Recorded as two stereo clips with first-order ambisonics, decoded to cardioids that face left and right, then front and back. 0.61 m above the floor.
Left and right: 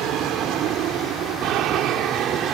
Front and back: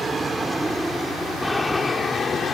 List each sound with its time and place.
0.0 s an aircraft: 105° right; by 2.5 s 55° right